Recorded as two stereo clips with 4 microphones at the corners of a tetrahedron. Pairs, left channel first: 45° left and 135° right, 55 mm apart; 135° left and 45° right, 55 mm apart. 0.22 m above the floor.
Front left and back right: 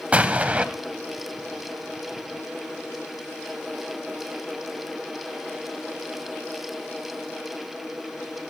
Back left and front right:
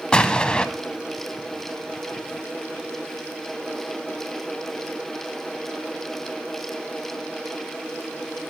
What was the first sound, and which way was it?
An explosion, 170° right.